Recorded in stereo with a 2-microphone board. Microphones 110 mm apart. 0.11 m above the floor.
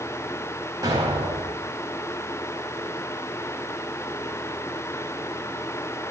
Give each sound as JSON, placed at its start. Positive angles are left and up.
{"t": 0.8, "sound": "an explosion", "side_deg": -35, "distance_m": 4.0}